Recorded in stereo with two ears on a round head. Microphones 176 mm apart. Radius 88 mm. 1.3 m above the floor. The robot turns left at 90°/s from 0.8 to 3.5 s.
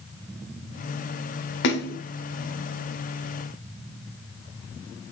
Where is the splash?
85° left, 1.7 m; by 2.0 s 55° left, 1.7 m.